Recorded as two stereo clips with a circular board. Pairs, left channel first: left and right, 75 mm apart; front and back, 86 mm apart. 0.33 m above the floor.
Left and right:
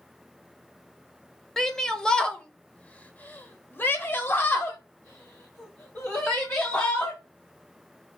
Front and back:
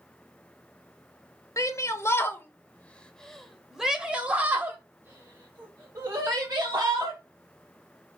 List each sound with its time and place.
1.6 s a shout: 5° left, 1.4 m; by 7.2 s 145° left, 2.5 m